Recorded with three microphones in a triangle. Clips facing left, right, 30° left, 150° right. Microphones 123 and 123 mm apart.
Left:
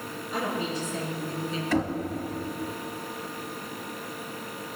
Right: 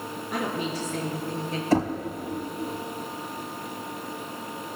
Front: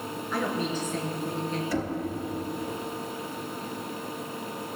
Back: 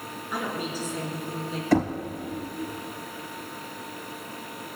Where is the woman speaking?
70° right, 4.5 m.